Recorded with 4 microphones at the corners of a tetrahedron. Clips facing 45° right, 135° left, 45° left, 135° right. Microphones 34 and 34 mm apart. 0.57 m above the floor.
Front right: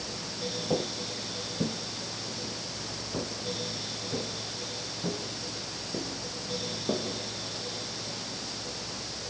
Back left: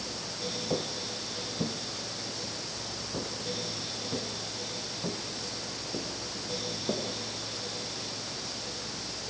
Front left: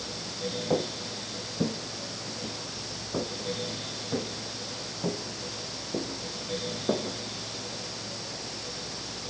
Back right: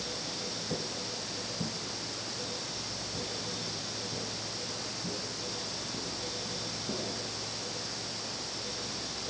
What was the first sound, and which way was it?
Footsteps, 35° left.